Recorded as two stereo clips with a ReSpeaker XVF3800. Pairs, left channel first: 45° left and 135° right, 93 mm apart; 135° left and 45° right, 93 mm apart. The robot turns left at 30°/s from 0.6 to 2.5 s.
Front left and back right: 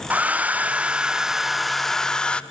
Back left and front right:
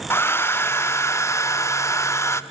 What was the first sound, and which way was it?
A hair dryer, 170° left.